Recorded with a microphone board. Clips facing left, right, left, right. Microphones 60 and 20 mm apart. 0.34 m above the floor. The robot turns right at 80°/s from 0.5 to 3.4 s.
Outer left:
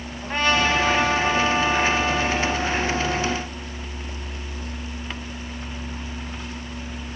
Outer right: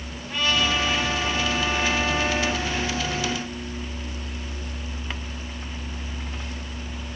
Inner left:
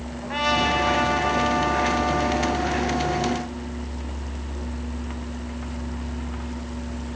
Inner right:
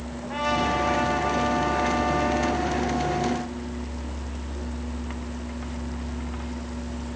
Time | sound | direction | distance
0.2 | a trumpet | 60° left | 2.5 m